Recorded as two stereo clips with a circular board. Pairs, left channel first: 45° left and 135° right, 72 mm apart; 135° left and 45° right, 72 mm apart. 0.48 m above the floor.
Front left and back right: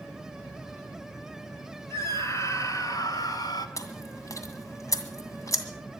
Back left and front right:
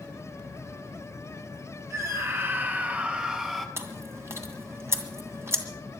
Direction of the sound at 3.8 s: 5° left.